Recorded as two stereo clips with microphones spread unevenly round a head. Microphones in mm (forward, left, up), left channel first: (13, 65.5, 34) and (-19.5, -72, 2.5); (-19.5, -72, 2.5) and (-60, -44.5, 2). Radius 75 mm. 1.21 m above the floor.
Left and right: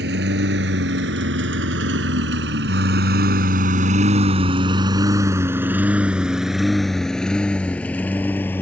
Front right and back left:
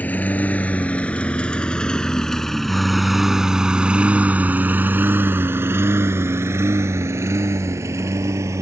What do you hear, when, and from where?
0.0 s a lawn mower: 85° right; by 8.6 s 150° left